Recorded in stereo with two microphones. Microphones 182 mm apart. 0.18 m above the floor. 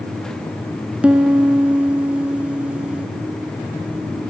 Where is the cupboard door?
No cupboard door in this recording.